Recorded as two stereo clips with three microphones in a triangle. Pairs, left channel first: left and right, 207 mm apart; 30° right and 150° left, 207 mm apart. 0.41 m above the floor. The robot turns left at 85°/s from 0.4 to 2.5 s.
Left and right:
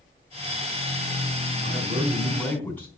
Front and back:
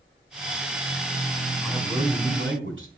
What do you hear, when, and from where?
1.6 s a man speaking: 115° right, 4 m; by 2.9 s 170° left, 4 m